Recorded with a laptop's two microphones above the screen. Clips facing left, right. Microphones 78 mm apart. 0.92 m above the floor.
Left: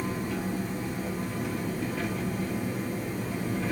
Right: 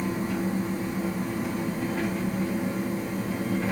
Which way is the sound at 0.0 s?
80° right.